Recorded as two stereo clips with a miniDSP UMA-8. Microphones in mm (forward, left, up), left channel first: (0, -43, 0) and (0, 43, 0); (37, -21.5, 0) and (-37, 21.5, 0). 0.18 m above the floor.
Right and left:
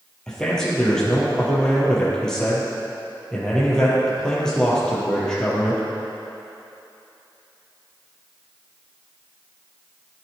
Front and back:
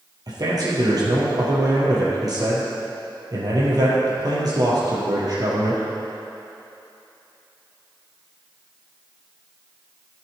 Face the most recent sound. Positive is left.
turn(degrees=-170)